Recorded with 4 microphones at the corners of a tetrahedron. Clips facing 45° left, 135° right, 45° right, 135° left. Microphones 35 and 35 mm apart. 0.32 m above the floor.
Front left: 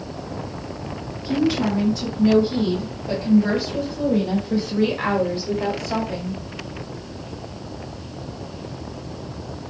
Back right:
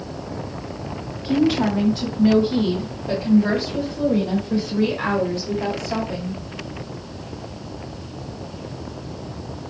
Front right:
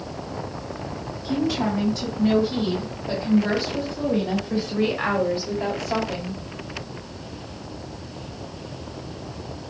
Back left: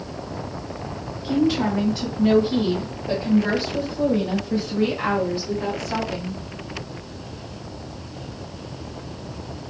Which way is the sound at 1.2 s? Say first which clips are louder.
Back right 2 dB, back left 3 dB; 175° right.